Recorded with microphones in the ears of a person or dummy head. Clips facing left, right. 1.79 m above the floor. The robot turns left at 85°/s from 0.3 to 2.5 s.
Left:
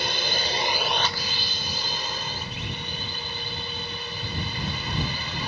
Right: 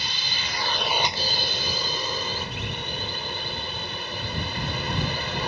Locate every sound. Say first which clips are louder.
0.0 s a drone: left 8 dB; 50° left; by 5.5 s 135° right